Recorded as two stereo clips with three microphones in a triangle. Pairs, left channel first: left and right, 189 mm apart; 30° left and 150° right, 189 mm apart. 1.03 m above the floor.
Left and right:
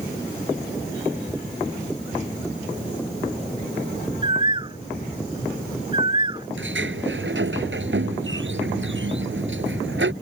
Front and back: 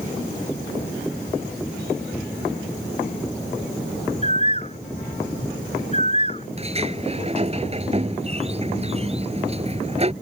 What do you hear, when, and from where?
4.2 s a bird: 25° right
6.6 s a sliding door: 95° right